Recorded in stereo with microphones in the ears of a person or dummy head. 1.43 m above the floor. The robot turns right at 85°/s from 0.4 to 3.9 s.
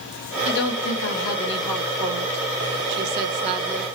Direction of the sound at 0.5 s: 60° left.